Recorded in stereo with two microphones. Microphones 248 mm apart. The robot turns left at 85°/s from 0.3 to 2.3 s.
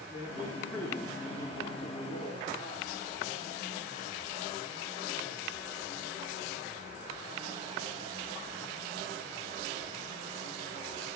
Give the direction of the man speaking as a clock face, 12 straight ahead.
5 o'clock.